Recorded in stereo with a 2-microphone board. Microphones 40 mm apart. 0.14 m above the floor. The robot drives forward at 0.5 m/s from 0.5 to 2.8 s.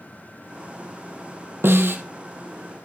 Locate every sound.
1.6 s a snare drum: 80° right, 1.1 m; by 2.0 s 75° right (ahead or behind), 1.1 m